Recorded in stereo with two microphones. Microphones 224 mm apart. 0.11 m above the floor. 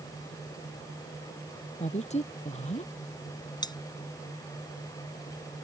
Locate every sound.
1.8 s a woman speaking: 30° left (ahead or behind)
3.6 s cutlery clinking: 20° left (ahead or behind)